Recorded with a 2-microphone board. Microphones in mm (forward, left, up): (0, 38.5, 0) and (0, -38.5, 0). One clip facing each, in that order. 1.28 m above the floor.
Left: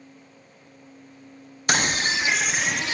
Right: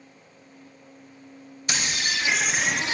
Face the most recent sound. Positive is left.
turn(degrees=-25)  # may be behind; listen again after turning